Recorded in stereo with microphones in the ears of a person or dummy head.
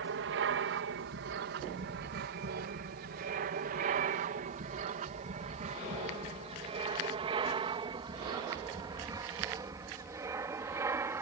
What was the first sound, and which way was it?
An aircraft, 65° right (ahead or behind).